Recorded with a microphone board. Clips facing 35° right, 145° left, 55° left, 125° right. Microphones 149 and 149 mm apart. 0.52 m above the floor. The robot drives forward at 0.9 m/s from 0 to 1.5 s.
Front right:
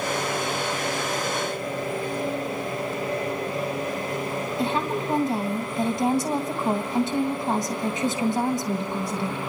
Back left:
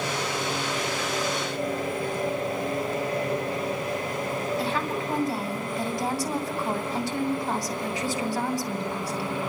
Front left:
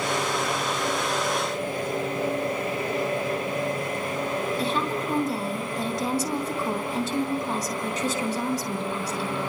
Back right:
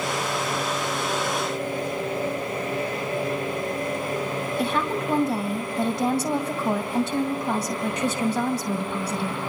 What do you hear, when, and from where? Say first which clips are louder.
4.6 s a woman speaking: front right 3 dB, back right 2 dB; 100° right, 3 m